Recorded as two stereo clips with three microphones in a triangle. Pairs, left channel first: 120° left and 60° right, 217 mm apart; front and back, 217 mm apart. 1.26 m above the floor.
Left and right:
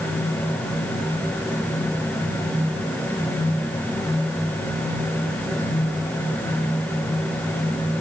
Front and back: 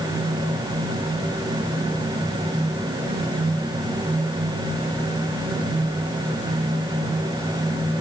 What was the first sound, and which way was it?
Only background noise.